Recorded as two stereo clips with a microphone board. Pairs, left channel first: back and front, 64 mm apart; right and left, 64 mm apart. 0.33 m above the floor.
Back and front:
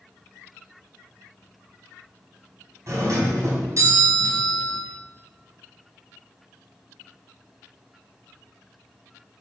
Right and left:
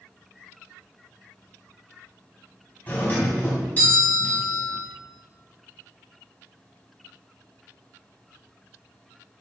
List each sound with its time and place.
2.9 s a doorbell: 30° right, 3 m